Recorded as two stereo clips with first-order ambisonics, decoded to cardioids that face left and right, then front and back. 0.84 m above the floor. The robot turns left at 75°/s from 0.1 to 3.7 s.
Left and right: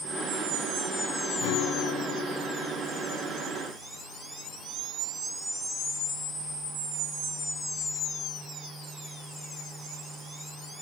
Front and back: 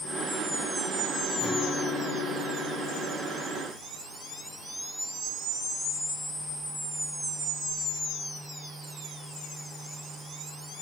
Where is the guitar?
90° left, 0.6 m; by 3.7 s 80° right, 0.6 m.